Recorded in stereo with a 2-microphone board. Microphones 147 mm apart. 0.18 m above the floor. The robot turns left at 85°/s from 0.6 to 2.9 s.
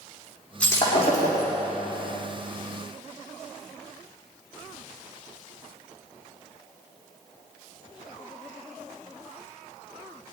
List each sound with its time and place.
0.6 s breaking glass: 175° left, 5.5 m; by 1.5 s 95° left, 5.5 m